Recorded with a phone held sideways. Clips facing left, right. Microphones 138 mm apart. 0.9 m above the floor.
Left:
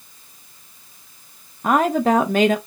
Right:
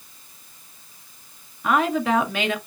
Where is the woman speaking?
40° left (ahead or behind), 0.7 m.